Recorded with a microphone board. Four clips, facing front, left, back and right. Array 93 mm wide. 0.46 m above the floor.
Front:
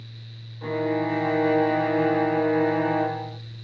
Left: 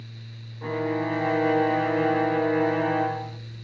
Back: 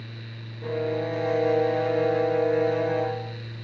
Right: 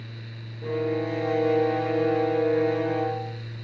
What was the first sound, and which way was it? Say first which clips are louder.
A violin: even, front 2 dB; 55° left.